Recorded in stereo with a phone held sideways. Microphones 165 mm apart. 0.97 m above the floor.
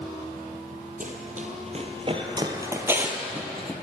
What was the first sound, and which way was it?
Running footsteps, 55° right (ahead or behind).